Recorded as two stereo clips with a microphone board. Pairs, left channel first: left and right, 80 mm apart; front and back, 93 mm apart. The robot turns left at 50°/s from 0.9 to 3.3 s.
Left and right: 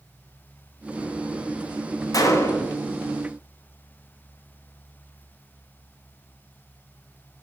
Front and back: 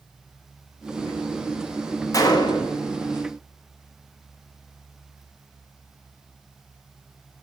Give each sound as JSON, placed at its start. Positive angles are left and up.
{"t": 2.1, "sound": "a gunshot", "azimuth_deg": 50, "distance_m": 0.8}